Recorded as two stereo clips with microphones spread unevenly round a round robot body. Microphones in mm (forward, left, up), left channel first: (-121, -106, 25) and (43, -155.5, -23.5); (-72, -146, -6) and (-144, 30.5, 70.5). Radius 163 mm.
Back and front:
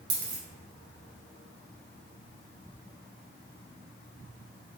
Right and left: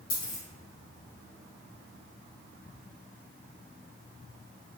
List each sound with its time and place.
0.1 s a dropped coin: 10° right, 1.3 m